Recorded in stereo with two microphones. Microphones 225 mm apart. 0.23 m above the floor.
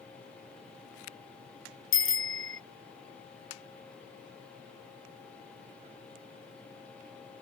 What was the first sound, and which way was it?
A bicycle bell, 70° left (ahead or behind).